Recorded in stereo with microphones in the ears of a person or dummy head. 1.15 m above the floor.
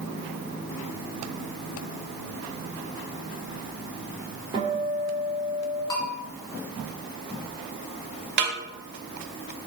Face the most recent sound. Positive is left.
turn(degrees=-50)  # may be behind; listen again after turning